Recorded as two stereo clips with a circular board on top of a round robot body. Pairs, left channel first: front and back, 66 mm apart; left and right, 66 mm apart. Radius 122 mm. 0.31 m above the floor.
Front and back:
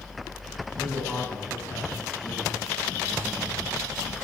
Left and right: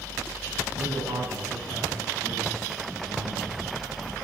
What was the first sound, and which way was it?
A man speaking, 70° right.